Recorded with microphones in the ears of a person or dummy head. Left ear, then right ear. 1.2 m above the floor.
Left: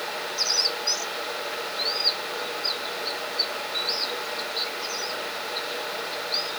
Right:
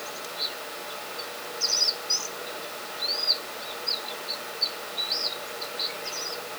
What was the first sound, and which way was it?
Only background noise.